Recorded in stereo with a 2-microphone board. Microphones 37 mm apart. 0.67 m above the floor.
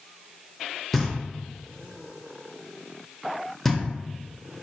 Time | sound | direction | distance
0.9 | knocking | 5° left (ahead or behind) | 0.9 m